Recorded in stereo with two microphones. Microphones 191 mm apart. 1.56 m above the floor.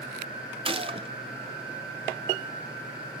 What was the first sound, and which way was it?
A gunshot, 25° right (ahead or behind).